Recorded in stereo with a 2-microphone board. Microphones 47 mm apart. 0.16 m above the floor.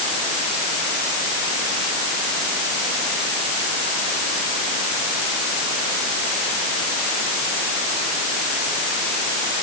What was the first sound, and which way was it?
Only background noise.